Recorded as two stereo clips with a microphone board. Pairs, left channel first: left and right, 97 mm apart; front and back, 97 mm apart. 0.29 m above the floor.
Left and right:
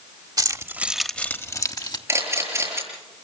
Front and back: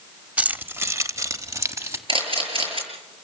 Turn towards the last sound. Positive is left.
turn(degrees=-155)